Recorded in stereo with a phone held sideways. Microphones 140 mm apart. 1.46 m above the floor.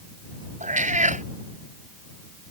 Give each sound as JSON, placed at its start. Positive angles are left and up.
{"t": 0.6, "sound": "a cat meowing", "side_deg": -60}